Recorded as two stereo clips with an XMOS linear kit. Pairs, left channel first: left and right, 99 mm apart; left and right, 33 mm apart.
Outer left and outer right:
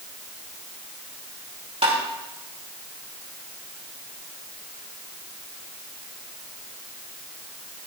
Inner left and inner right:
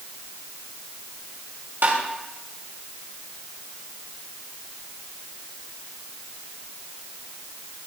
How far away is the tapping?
About 2.5 m.